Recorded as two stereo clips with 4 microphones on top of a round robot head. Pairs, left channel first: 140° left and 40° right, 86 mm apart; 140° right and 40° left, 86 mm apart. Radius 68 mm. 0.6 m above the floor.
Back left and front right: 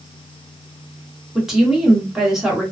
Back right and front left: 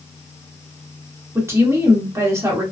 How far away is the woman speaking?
About 1.3 m.